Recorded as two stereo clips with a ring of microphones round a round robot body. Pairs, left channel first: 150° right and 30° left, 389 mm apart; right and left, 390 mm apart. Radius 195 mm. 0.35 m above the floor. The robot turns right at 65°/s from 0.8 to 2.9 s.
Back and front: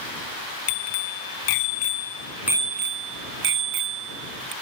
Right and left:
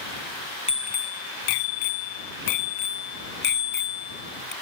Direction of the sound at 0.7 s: 165° right.